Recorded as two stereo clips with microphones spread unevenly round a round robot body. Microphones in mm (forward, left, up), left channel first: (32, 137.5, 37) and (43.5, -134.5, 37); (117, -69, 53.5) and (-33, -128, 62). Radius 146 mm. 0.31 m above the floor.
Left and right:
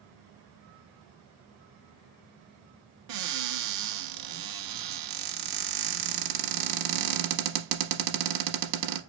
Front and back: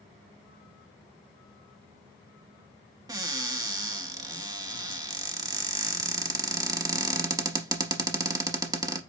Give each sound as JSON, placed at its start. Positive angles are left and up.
{"t": 3.1, "sound": "a cupboard door", "azimuth_deg": -90, "distance_m": 1.0}